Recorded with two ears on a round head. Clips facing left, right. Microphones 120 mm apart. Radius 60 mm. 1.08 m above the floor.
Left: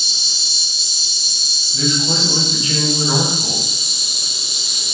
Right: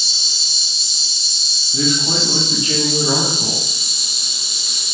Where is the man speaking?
35° right (ahead or behind), 1.2 m.